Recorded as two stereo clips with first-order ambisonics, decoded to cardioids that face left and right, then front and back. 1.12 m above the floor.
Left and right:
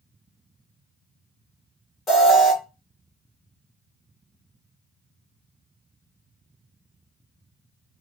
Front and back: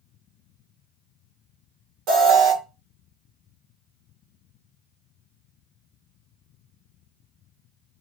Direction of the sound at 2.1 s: 160° left.